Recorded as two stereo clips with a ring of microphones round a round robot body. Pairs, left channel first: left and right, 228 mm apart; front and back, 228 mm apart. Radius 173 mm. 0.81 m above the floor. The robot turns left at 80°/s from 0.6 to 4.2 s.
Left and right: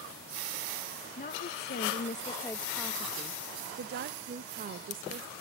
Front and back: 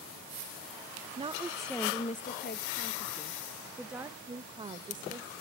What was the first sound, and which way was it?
A woman speaking, 125° left.